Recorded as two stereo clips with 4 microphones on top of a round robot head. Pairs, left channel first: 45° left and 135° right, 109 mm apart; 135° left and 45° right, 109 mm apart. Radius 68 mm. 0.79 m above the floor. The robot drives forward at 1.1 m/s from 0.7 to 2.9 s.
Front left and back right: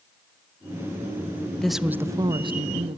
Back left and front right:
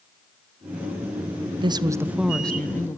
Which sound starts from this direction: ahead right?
A woman speaking, at 1.6 s.